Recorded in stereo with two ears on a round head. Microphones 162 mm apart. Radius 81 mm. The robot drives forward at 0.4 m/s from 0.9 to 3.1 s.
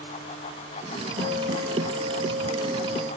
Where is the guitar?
35° right (ahead or behind), 2.5 m; by 3.1 s 25° right (ahead or behind), 3 m.